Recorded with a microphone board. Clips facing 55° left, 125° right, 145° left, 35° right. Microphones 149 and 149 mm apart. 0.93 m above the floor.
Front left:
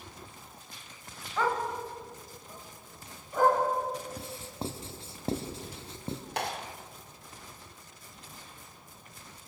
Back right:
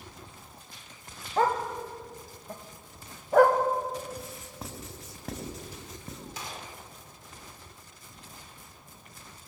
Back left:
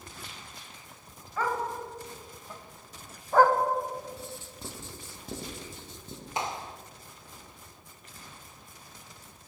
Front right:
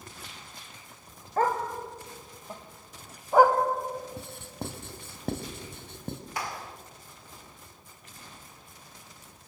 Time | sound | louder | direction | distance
1.4 | a dog barking | back right 3 dB, front right 4 dB | 75° right | 2.5 m
4.2 | writing | front left 3 dB, front right 3 dB | 5° right | 3 m
6.4 | a clap | front left 7 dB, back left 6 dB | 80° left | 1.8 m